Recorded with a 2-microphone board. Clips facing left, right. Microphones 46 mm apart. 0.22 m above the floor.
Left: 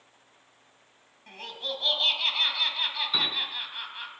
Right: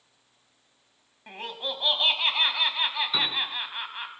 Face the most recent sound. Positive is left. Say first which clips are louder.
# right 1 dB
turn(degrees=-5)  # may be behind; listen again after turning